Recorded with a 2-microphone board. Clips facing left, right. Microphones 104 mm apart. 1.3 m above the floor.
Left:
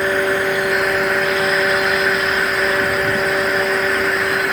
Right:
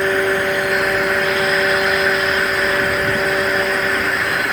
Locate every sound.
Only background noise.